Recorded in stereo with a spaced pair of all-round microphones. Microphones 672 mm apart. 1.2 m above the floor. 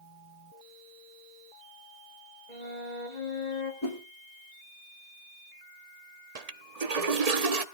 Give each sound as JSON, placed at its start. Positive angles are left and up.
{"t": 2.5, "sound": "a flute", "side_deg": 85, "distance_m": 2.5}
{"t": 3.8, "sound": "a whoosh", "side_deg": 45, "distance_m": 3.0}
{"t": 6.3, "sound": "a toilet flushing", "side_deg": -65, "distance_m": 1.2}